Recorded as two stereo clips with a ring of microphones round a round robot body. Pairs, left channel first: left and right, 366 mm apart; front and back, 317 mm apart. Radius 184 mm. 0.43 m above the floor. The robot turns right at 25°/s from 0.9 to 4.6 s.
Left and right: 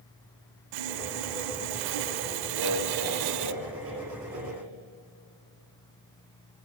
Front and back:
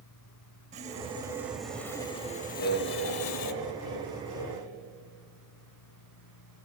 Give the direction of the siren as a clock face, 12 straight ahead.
I don't hear a siren.